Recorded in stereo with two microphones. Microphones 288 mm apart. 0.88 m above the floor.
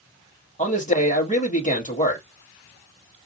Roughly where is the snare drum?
I don't hear a snare drum.